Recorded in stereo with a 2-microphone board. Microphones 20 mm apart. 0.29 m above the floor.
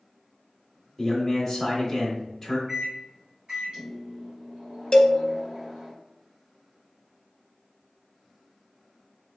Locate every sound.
1.0 s a man speaking: 5° left (ahead or behind), 0.9 m
2.7 s a microwave: 45° right (ahead or behind), 1.2 m
4.9 s a cowbell: 30° left (ahead or behind), 0.6 m